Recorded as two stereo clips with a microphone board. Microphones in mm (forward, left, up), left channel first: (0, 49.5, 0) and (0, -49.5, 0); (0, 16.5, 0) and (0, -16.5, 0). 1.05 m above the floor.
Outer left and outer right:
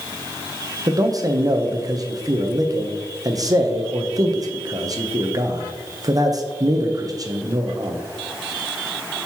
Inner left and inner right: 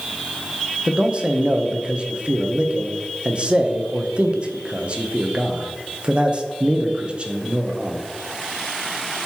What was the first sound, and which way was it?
A man speaking, 35° right (ahead or behind).